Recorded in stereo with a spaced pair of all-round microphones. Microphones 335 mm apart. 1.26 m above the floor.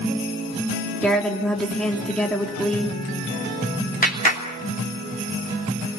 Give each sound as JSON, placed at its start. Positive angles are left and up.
{"t": 1.0, "sound": "a woman speaking", "side_deg": 0, "distance_m": 3.0}
{"t": 4.0, "sound": "a clap", "side_deg": 30, "distance_m": 3.0}